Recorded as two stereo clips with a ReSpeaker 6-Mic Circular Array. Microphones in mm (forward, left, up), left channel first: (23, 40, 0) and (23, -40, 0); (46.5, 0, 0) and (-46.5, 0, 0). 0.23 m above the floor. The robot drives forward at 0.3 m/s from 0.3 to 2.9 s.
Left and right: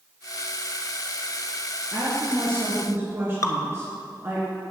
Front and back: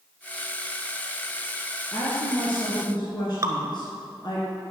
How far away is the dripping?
About 0.9 m.